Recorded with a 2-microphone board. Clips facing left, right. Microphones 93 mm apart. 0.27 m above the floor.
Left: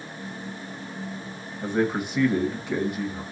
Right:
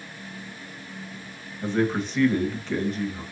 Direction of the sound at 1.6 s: 10° left (ahead or behind).